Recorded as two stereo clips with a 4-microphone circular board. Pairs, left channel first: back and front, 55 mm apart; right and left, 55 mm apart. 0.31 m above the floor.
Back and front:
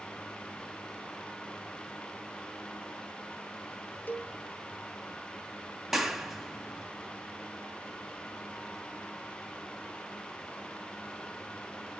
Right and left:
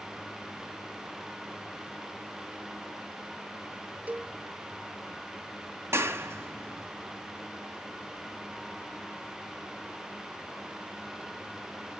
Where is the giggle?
No giggle in this recording.